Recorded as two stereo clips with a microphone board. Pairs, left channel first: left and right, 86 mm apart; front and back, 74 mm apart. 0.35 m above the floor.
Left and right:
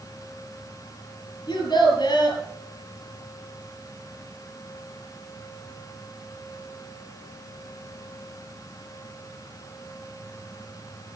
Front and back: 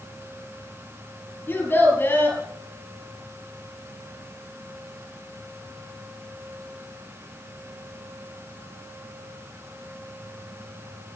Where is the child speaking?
60° left, 4 m.